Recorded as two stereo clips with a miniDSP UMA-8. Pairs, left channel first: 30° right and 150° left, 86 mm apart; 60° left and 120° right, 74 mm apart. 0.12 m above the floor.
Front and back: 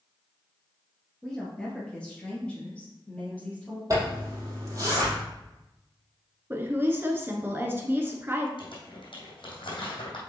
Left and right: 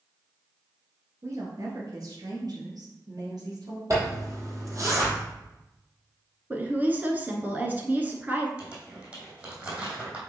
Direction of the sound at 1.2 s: 110° right.